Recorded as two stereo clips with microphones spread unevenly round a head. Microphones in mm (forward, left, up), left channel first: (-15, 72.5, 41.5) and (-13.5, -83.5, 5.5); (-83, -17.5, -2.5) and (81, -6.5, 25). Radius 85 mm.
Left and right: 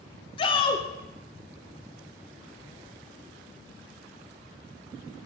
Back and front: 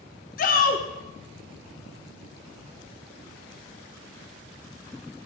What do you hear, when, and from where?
0.4 s a shout: 140° left, 1.1 m